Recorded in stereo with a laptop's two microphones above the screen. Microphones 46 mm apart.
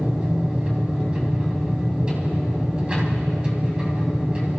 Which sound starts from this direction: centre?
A machine running, at 0.0 s.